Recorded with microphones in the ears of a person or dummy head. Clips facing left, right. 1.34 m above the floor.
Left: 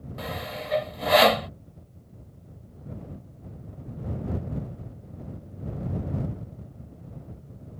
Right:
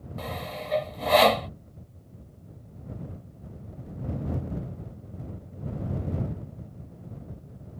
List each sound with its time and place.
0.2 s sawing: 10° left (ahead or behind)